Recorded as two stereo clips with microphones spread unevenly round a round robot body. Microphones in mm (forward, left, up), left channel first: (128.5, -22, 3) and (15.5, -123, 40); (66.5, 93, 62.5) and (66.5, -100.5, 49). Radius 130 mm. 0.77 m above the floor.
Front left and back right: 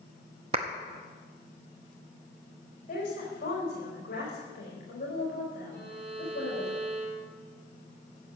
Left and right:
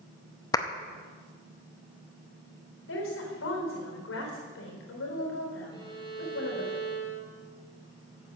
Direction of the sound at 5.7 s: 165° left.